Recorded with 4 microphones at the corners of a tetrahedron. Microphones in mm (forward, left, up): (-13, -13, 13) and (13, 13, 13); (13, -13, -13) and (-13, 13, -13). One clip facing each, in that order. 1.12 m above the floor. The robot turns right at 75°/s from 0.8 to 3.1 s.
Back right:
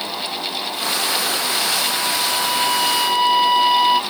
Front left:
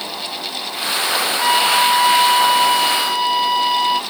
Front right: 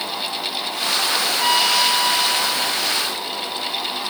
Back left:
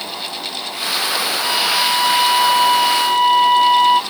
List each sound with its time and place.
1.4 s a flute: 15° left; by 4.0 s 145° left